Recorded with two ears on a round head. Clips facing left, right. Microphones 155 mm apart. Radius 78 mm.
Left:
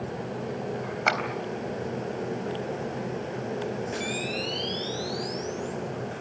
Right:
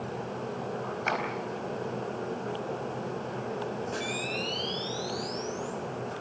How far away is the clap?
About 3.5 m.